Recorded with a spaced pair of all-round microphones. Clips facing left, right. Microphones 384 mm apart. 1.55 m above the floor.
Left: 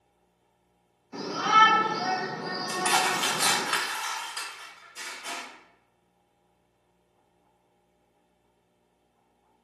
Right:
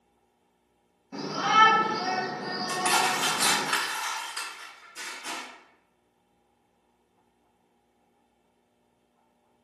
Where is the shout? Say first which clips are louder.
Even; 65° right (ahead or behind), 1.6 m; by 3.7 s 45° right (ahead or behind), 2.5 m.